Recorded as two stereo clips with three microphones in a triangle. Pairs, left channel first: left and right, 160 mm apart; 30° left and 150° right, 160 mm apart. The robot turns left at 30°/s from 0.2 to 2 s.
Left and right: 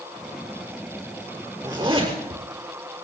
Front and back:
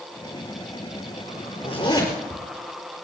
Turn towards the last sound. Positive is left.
turn(degrees=-30)